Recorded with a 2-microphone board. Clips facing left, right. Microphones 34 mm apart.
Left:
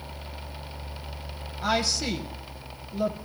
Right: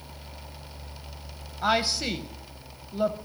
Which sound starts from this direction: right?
A woman speaking, at 1.6 s.